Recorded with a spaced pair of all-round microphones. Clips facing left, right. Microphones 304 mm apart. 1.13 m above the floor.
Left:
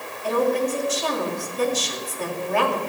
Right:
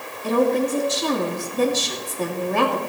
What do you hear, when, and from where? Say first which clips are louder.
0.2 s a woman speaking: right 2 dB; 45° right (ahead or behind), 2.5 m